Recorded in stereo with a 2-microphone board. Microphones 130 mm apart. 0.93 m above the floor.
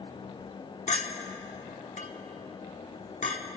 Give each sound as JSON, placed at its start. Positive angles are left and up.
{"t": 0.9, "sound": "a clink", "side_deg": 60, "distance_m": 1.0}